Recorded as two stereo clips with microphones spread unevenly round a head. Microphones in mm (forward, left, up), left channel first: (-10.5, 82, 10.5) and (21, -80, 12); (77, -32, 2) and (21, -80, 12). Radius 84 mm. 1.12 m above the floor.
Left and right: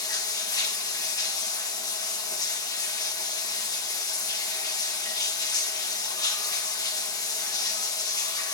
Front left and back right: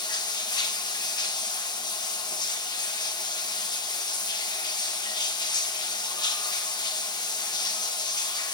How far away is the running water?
About 1.2 m.